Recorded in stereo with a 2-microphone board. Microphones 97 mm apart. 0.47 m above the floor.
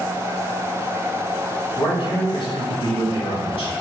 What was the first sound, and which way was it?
A man speaking, 60° left (ahead or behind).